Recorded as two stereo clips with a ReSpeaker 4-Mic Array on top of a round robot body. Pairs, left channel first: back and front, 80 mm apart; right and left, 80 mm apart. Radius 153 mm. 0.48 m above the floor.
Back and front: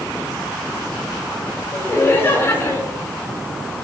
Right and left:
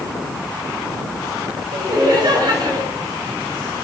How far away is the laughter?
About 8 m.